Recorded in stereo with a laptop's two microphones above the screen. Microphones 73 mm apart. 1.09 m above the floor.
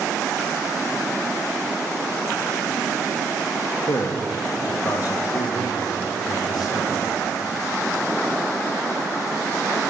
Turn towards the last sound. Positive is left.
turn(degrees=75)  # may be behind; listen again after turning